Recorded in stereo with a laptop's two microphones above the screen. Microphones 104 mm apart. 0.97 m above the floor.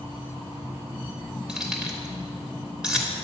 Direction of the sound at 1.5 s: 5° right (ahead or behind).